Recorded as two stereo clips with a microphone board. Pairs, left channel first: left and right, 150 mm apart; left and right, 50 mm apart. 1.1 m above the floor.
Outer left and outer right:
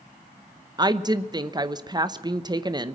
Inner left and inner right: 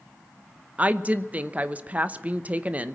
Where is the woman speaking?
30° right (ahead or behind), 0.8 m.